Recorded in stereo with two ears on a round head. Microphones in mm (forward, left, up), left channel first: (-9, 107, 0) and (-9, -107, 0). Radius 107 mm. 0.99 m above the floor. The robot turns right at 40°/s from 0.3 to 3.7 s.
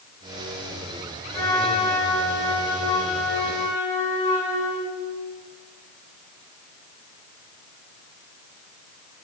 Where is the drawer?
I don't hear a drawer.